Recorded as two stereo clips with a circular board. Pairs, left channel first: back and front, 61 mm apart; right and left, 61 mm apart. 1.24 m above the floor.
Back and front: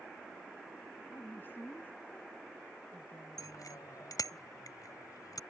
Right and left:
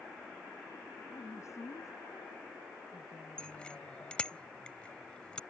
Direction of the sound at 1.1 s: 125° right.